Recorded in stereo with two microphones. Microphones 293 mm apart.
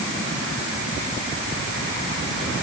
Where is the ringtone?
No ringtone in this recording.